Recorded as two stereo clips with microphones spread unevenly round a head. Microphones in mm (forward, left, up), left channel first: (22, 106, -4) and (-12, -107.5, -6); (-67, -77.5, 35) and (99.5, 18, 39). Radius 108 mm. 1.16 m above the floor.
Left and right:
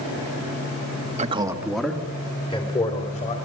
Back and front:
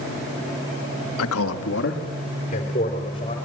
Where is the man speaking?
160° right, 1.4 m; by 3.4 s 140° left, 4 m.